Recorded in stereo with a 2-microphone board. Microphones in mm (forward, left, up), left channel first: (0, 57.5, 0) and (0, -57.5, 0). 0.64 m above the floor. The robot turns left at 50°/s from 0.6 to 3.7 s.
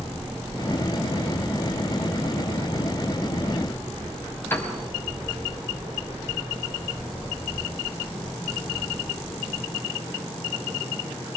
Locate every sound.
4.5 s a piano: 20° left (ahead or behind), 4.5 m